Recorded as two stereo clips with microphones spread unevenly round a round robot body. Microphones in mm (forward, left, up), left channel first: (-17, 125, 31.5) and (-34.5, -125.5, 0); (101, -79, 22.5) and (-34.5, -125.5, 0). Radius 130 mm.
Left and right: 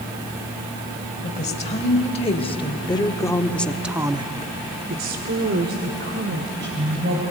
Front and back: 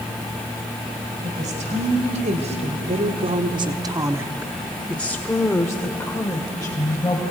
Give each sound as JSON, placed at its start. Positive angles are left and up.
{"t": 1.2, "sound": "a woman speaking", "azimuth_deg": 150, "distance_m": 3.0}